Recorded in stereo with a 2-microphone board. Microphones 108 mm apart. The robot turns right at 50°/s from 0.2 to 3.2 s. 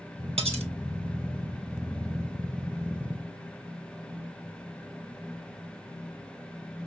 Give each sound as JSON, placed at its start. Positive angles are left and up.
{"t": 0.4, "sound": "cutlery clinking", "side_deg": -65, "distance_m": 1.9}